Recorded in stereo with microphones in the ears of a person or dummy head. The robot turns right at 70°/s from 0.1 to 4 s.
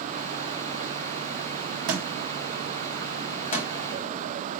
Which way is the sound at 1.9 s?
60° right (ahead or behind).